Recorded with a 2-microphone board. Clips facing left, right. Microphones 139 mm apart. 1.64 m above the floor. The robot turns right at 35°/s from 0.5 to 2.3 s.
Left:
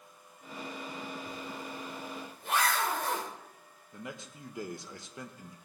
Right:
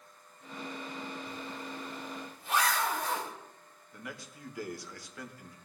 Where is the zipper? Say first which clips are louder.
Even; 40° left (ahead or behind), 3 m; by 3.3 s 65° left (ahead or behind), 3 m.